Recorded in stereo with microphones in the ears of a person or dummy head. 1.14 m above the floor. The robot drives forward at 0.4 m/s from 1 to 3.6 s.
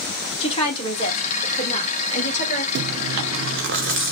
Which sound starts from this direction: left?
A woman speaking, at 0.4 s.